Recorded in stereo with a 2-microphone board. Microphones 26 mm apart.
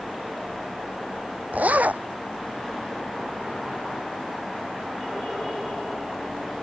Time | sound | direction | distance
1.5 | a zipper | 80° right | ?